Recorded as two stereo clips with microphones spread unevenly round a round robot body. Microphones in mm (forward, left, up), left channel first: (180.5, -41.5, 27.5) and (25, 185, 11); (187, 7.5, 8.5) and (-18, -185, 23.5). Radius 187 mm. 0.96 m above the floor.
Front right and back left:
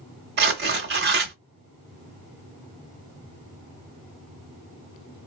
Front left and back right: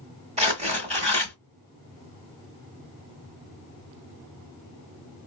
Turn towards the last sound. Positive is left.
turn(degrees=165)